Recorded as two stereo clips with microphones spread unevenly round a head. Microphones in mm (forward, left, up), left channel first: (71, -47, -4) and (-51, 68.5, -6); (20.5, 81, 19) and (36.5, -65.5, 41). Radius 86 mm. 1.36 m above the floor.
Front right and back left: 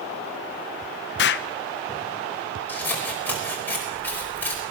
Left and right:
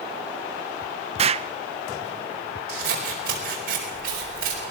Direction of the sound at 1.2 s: 45° right.